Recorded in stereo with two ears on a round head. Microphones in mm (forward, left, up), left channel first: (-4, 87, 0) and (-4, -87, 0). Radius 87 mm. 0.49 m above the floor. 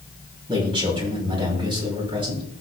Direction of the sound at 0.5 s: 25° right (ahead or behind).